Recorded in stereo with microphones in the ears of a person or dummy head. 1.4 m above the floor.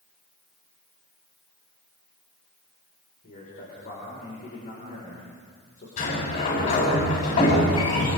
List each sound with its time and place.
3.2 s a man speaking: 45° left (ahead or behind), 6 m
6.0 s a sliding door: 45° left (ahead or behind), 9 m